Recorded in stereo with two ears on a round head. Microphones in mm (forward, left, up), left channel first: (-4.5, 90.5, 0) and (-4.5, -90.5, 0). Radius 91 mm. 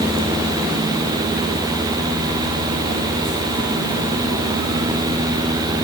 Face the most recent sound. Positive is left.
No sound to turn to.